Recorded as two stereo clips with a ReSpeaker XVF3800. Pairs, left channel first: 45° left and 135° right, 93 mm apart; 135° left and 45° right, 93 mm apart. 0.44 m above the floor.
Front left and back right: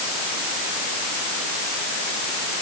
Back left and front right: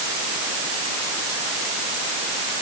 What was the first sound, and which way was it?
Only background noise.